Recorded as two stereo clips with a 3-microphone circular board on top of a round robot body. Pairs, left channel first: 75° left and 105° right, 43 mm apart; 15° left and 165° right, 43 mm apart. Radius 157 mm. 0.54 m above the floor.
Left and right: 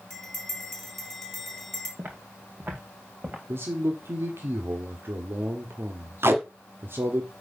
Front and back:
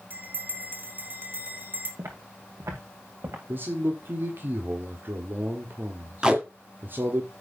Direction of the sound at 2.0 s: 155° right.